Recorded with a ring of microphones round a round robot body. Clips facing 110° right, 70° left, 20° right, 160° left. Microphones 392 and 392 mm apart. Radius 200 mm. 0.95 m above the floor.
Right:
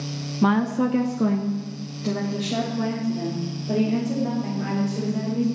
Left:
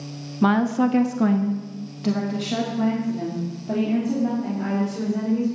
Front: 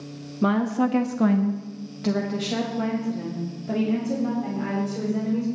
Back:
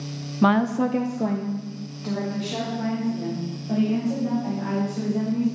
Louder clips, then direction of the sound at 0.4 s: Left 1 dB, back 1 dB; 155° left.